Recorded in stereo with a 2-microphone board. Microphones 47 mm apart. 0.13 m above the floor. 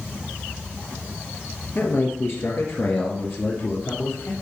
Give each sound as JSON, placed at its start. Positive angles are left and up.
{"t": 1.8, "sound": "a man speaking", "side_deg": 50, "distance_m": 2.0}